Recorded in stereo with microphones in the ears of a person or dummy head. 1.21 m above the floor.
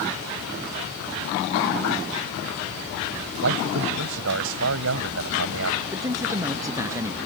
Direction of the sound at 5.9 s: 15° right (ahead or behind).